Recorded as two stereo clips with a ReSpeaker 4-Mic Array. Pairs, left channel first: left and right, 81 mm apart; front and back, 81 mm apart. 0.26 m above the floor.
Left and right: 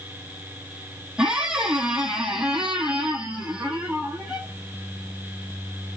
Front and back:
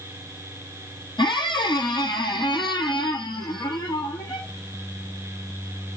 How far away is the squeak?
About 0.9 m.